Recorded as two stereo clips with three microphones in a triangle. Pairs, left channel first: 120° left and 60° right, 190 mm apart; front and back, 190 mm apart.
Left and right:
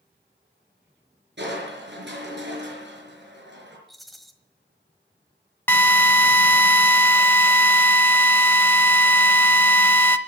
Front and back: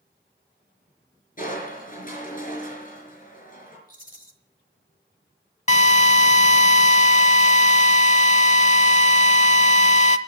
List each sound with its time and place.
1.4 s crushing: 40° right, 5 m
3.9 s a rattle: 30° left, 1.4 m
5.7 s a drill: 45° left, 0.7 m